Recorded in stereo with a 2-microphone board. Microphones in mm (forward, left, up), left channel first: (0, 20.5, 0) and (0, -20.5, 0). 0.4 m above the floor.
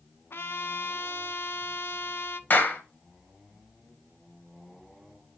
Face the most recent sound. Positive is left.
turn(degrees=50)  # may be behind; listen again after turning